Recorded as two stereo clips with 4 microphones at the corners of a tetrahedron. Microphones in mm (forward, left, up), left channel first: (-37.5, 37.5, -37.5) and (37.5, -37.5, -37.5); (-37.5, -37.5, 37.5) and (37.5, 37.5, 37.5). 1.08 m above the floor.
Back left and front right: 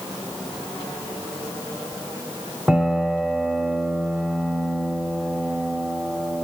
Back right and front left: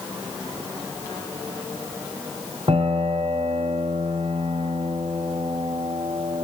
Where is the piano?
35° left, 0.9 m.